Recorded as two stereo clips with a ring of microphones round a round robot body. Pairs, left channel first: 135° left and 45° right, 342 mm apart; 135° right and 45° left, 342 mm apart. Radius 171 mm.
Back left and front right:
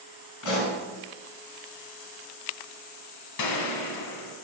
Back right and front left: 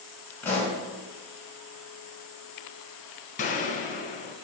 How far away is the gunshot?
About 1.2 m.